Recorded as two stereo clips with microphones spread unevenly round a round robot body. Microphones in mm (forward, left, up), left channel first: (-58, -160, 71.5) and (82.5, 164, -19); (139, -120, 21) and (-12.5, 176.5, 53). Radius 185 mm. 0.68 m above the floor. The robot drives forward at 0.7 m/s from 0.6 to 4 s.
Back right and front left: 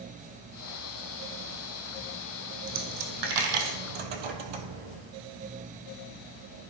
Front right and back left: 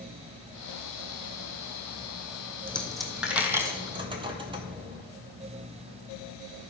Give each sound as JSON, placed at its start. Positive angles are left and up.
{"t": 2.7, "sound": "a dropped coin", "azimuth_deg": 25, "distance_m": 2.0}